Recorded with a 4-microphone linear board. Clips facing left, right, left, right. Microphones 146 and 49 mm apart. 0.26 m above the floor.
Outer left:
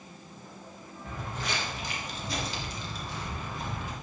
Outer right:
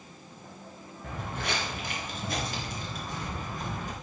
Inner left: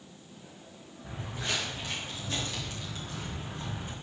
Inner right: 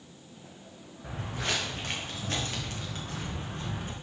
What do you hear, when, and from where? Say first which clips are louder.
1.0 s footsteps: outer right 2 dB, inner right 2 dB; 65° right (ahead or behind), 4 m; by 3.9 s 45° right (ahead or behind), 5 m